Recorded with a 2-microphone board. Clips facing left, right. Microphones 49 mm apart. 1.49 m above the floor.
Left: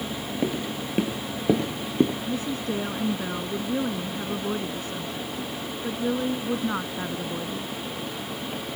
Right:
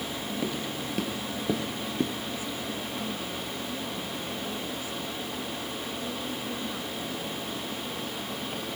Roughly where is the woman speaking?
Left.